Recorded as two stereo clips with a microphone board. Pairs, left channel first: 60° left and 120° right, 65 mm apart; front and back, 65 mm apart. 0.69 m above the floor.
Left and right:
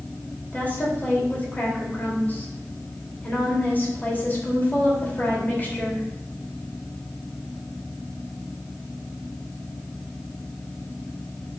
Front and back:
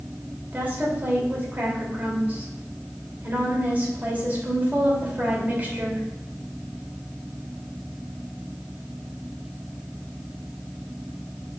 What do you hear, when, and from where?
0.5 s a woman speaking: 120° left, 2.5 m